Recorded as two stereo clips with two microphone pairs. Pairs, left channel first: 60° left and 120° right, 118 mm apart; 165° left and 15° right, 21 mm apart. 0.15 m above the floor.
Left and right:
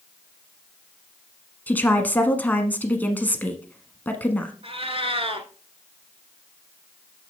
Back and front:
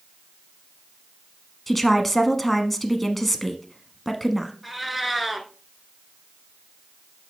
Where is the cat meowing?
105° right, 1.0 m.